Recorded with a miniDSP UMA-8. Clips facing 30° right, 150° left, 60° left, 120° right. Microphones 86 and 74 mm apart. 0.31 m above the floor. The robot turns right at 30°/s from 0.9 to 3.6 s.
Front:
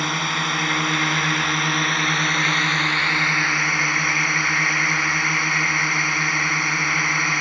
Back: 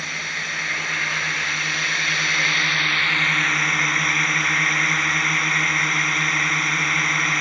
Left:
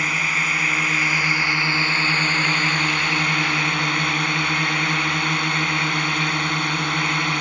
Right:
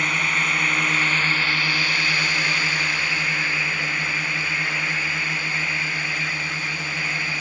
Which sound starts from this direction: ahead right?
A drone, at 0.0 s.